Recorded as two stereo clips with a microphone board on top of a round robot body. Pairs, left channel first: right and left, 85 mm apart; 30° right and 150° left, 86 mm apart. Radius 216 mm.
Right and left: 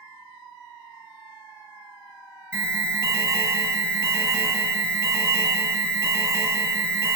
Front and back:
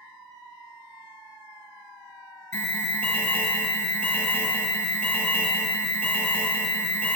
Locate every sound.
2.5 s an alarm: 35° left, 1.6 m